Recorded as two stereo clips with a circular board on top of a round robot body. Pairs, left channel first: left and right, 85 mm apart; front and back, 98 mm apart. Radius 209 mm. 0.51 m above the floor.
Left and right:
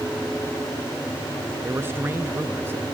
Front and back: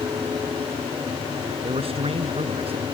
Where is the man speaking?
155° right.